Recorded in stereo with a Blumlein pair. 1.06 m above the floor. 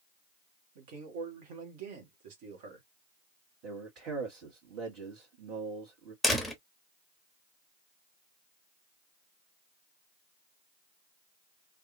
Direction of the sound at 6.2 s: Straight ahead.